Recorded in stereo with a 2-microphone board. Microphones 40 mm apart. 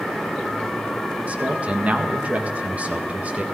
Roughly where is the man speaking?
Right.